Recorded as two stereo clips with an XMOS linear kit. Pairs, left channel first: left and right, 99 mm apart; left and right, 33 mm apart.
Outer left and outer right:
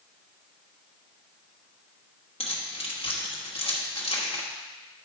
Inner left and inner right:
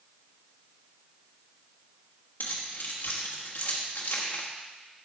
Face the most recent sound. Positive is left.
turn(degrees=85)